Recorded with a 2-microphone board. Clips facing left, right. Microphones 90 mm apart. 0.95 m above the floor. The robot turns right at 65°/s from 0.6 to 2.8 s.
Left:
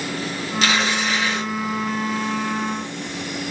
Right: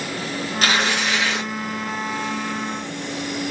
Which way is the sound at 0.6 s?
135° right.